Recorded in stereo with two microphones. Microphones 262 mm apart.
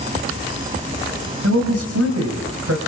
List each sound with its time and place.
1.4 s a man speaking: 65° right (ahead or behind), 4.5 m